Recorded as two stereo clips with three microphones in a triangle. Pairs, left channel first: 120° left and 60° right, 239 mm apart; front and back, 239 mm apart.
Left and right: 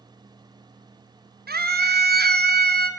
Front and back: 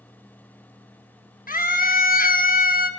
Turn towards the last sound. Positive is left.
turn(degrees=-35)